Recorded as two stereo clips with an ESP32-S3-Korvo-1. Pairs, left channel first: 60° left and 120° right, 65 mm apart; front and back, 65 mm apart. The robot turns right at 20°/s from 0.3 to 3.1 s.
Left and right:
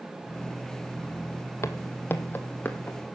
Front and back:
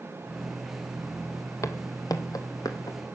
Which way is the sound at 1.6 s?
25° left.